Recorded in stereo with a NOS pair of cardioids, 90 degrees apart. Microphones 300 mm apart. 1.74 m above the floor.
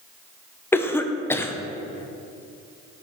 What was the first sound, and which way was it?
A cough, 10° left.